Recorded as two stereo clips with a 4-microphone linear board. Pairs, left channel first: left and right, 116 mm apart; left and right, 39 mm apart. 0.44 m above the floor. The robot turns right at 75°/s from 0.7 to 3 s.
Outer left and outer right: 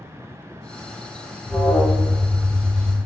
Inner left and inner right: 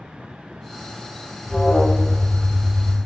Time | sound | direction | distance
1.4 | an alarm | 15° left (ahead or behind) | 0.6 m